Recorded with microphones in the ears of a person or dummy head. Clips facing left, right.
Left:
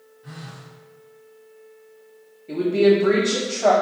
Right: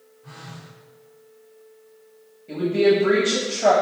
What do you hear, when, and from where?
0.2 s a phone buzzing: 15° left (ahead or behind), 0.7 m
2.5 s a woman speaking: 5° right (ahead or behind), 1.1 m